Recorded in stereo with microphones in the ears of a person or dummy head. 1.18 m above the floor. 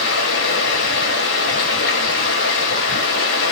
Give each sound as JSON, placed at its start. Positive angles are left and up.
{"t": 0.0, "sound": "running water", "side_deg": 60, "distance_m": 1.0}